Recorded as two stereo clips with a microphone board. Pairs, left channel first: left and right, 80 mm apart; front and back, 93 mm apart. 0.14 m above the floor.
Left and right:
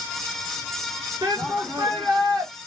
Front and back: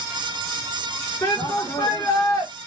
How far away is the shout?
About 6.5 m.